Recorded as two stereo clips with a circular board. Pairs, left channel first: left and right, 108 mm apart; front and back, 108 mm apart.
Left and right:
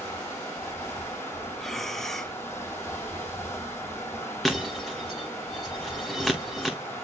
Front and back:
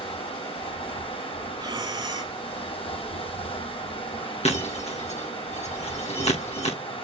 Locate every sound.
0.0 s running water: 20° left, 4 m
1.6 s breathing: 175° left, 0.9 m
4.4 s breaking glass: straight ahead, 2.5 m